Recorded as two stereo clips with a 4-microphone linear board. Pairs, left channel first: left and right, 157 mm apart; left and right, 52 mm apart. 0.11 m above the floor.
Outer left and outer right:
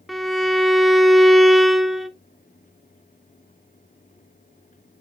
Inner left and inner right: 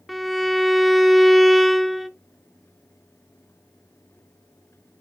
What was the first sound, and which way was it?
A violin, centre (ahead or behind).